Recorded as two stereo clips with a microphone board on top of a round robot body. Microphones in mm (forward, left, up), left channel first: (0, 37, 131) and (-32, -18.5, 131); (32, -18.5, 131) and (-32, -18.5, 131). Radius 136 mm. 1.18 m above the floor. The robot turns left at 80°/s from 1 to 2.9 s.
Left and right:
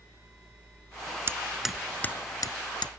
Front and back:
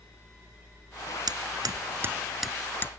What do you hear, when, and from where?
1.3 s hammering: 175° right; by 2.9 s 55° left